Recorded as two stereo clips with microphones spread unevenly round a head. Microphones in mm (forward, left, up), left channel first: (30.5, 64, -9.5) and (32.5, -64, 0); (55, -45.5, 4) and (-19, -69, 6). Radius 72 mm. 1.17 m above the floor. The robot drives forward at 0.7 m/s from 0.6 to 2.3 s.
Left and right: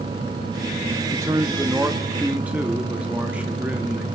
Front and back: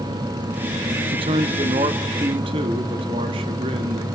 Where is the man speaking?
160° right, 0.8 m; by 4.1 s 170° right, 1.6 m.